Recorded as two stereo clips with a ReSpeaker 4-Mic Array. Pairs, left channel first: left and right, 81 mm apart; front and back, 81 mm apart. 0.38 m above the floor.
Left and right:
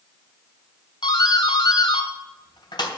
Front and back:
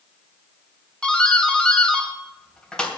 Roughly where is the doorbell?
Left.